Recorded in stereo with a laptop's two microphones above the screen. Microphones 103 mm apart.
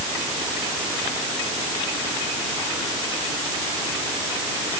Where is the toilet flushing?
No toilet flushing in this recording.